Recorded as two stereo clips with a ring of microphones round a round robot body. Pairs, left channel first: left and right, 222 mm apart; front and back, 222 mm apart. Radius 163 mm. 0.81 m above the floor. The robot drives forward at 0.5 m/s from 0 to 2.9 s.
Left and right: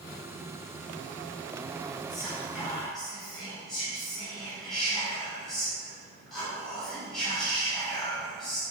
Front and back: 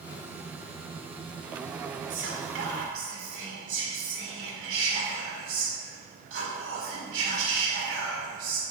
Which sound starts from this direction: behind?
Whispering, at 2.1 s.